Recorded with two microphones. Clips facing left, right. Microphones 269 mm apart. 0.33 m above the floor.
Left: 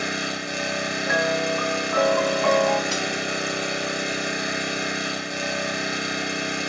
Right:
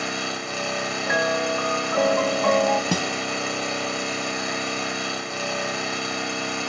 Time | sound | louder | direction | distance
0.0 | an engine running | left 1 dB | 20° left (ahead or behind) | 1.7 m
1.1 | a piano | even | centre (ahead or behind) | 0.7 m
2.9 | a guitar | right 2 dB | 60° right (ahead or behind) | 1.0 m